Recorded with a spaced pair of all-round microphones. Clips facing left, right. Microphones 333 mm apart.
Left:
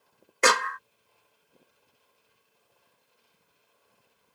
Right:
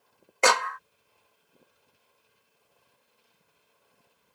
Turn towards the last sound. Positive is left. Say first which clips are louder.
# even
turn(degrees=25)  # may be behind; listen again after turning